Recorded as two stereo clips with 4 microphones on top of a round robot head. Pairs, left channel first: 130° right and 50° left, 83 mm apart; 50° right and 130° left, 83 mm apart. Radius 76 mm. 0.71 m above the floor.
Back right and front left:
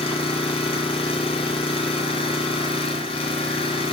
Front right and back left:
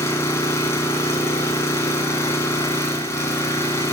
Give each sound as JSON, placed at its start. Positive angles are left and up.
{"t": 0.0, "sound": "an engine running", "azimuth_deg": -110, "distance_m": 3.0}